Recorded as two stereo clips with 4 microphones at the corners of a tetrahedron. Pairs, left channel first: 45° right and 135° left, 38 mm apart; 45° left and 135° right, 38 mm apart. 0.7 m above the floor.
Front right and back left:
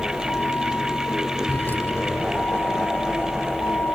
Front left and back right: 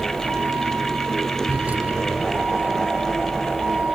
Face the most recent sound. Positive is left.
turn(degrees=-75)